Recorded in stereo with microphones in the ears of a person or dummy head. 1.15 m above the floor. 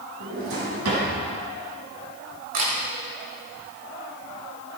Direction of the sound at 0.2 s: 85° right.